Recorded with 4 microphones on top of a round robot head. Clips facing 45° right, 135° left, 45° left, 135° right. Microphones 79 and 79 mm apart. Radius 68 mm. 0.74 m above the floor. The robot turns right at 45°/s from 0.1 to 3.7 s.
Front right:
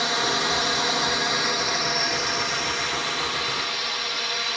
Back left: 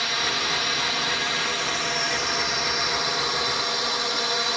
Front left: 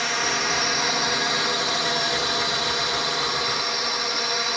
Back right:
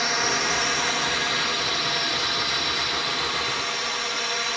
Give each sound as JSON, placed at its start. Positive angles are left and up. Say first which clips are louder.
{"t": 0.0, "sound": "a drone", "louder": "front right 3 dB, even", "azimuth_deg": -55}